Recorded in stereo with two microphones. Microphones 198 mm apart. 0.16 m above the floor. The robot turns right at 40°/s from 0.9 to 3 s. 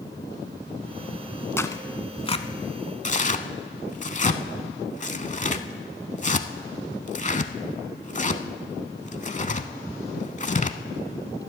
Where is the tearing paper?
10° left (ahead or behind), 0.5 m; by 10.8 s 35° left (ahead or behind), 0.5 m.